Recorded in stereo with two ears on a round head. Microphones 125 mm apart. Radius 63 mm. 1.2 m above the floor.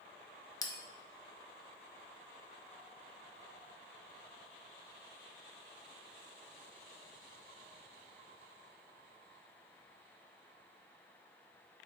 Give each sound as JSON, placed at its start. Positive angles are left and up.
{"t": 0.6, "sound": "a bell", "side_deg": 25, "distance_m": 0.6}